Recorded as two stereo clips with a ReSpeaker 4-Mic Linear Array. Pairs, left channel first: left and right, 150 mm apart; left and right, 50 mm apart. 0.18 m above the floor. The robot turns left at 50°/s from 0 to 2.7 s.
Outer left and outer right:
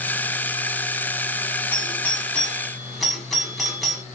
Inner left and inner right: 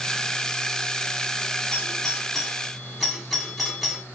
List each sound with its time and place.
1.7 s a doorbell: 15° left (ahead or behind), 1.4 m; by 4.0 s centre (ahead or behind), 1.4 m